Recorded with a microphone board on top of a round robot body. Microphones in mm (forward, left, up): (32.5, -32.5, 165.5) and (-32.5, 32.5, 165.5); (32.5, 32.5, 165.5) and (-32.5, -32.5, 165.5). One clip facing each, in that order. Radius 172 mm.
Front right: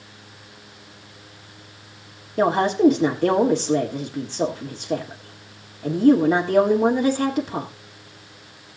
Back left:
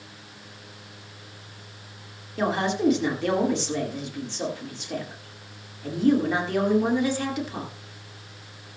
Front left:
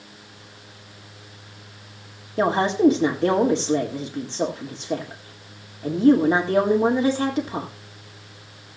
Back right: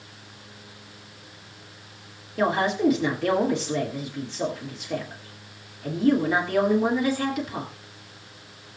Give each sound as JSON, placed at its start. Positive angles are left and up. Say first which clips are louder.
{"t": 2.4, "sound": "a woman speaking", "louder": "front right 7 dB, front left 4 dB", "azimuth_deg": -5, "distance_m": 1.8}